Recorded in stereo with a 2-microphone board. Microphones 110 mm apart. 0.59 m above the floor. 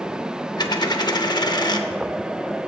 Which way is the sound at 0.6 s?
40° left (ahead or behind).